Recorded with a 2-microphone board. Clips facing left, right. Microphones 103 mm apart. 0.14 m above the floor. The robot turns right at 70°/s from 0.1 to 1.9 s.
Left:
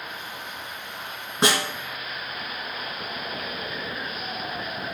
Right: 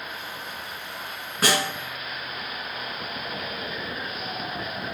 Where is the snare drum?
25° left (ahead or behind), 1.8 m; by 1.7 s 30° left (ahead or behind), 1.8 m.